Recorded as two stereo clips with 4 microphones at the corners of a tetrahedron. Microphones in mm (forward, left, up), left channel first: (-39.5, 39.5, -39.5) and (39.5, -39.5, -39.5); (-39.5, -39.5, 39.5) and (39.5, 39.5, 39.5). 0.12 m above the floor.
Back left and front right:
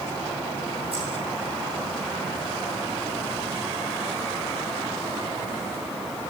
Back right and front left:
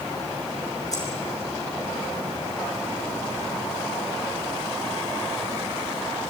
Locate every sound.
0.9 s keys jangling: 80° right, 6.5 m